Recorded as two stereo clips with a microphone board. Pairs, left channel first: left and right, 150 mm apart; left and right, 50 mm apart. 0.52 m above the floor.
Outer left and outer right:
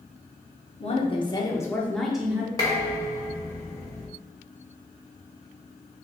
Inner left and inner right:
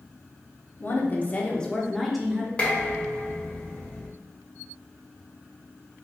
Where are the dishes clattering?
25° left (ahead or behind), 1.4 m.